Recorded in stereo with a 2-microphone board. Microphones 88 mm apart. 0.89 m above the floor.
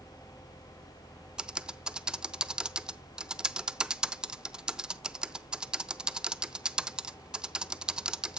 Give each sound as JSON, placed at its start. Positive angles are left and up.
{"t": 1.4, "sound": "typing on a keyboard", "side_deg": -10, "distance_m": 0.5}